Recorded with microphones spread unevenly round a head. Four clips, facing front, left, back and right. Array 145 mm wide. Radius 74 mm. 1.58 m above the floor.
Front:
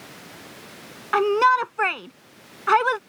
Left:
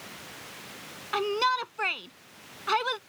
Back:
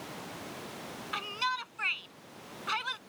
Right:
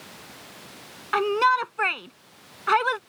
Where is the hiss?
No hiss in this recording.